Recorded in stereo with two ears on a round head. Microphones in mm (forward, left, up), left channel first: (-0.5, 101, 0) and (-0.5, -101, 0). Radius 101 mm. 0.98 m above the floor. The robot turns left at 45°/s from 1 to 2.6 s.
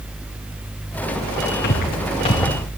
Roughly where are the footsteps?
Left.